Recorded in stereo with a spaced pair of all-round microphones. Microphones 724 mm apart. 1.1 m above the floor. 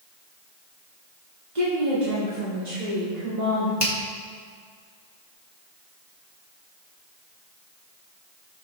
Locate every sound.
1.6 s a woman speaking: 75° right (ahead or behind), 3 m; by 3.7 s 55° right (ahead or behind), 4 m
3.8 s a finger snap: 35° left (ahead or behind), 1.9 m